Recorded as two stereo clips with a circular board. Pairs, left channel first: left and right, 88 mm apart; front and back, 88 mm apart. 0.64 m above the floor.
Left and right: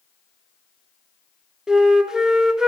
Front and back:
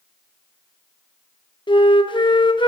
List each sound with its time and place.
1.7 s a flute: 10° right, 0.9 m